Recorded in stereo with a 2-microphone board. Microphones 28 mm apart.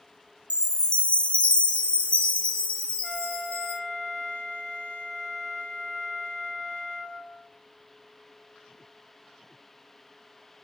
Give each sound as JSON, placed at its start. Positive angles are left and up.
{"t": 0.5, "sound": "a chime", "side_deg": 50, "distance_m": 0.9}
{"t": 3.0, "sound": "a flute", "side_deg": 25, "distance_m": 1.6}